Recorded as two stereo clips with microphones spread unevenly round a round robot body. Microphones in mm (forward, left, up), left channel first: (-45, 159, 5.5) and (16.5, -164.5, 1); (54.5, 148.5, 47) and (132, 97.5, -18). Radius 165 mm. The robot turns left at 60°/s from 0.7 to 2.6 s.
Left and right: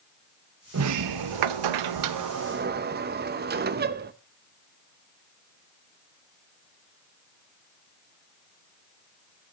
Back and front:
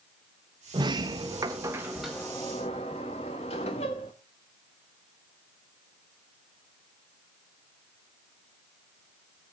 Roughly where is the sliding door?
Ahead right.